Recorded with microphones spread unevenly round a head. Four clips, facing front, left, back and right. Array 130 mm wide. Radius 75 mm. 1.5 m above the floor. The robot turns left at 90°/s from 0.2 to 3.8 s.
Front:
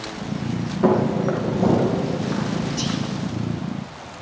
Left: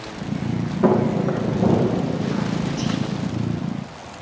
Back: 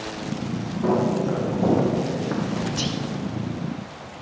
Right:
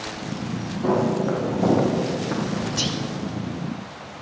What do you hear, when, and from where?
0.8 s footsteps: 20° left, 3.5 m; by 2.4 s 135° right, 4.5 m
2.8 s whispering: 90° right, 0.8 m; by 3.0 s 110° right, 0.8 m